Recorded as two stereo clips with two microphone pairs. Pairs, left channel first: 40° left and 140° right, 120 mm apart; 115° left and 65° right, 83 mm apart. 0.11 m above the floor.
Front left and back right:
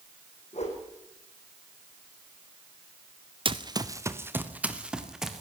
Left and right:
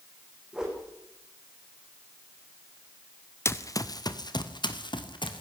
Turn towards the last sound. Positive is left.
turn(degrees=130)